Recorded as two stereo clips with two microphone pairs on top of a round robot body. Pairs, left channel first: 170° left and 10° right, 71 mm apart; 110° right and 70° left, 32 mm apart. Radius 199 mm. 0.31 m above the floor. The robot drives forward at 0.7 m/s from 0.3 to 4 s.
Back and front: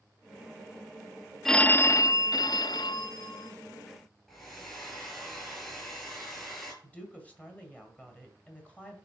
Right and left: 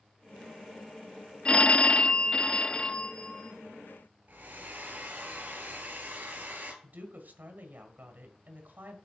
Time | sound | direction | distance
1.4 | a phone ringing | 105° right | 0.5 m
4.3 | a hair dryer | 85° left | 5 m
6.8 | a woman speaking | 95° left | 3 m